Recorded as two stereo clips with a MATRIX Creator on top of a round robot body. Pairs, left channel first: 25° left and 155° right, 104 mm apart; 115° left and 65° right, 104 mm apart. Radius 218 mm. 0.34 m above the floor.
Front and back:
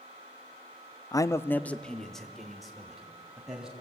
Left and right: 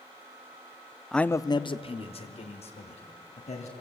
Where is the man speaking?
25° left, 0.9 m; by 3.7 s 120° left, 3.5 m.